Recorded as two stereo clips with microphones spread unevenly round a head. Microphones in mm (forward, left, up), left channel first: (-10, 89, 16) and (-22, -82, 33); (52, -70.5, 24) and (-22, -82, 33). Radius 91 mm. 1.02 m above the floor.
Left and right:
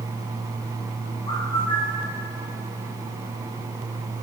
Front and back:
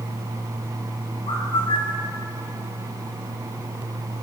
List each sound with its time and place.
1.3 s a bird: 20° left, 6 m